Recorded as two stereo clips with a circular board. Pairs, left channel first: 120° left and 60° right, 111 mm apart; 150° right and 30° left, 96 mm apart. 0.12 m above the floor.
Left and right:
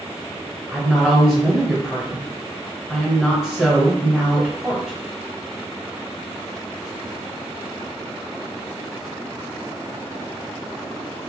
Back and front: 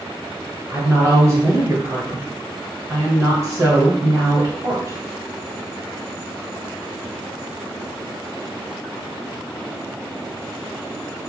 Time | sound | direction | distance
0.7 | a woman speaking | 20° left | 1.3 m